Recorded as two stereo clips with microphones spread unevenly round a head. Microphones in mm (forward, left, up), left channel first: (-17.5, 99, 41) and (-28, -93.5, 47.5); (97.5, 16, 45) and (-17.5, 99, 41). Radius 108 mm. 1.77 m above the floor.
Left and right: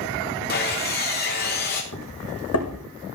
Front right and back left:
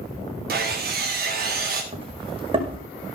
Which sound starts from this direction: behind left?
Sawing, at 0.5 s.